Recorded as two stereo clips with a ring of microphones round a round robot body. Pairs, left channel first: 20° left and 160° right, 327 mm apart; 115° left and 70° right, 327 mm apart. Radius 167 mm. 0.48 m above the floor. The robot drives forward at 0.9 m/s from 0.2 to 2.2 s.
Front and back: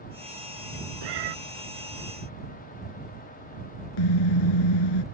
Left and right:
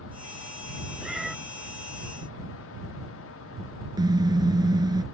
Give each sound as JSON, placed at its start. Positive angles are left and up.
{"t": 1.0, "sound": "a cat meowing", "azimuth_deg": -155}
{"t": 4.0, "sound": "a car horn", "azimuth_deg": 10}